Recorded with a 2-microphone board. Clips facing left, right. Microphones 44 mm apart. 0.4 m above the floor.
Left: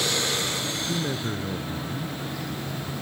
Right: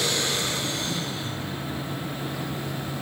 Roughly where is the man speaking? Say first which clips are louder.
Left 3 dB; left.